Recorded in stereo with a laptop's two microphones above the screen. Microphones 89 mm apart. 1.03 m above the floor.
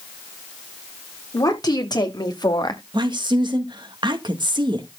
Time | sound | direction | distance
1.3 | a woman speaking | 50° left (ahead or behind) | 3 m
2.9 | a woman speaking | 65° right (ahead or behind) | 1.7 m